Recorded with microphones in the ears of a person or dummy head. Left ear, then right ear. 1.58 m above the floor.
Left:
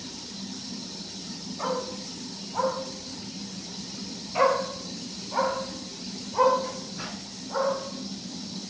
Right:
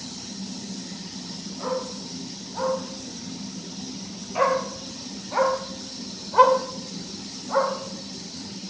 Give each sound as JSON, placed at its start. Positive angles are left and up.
{"t": 1.6, "sound": "a dog barking", "side_deg": 50, "distance_m": 5.5}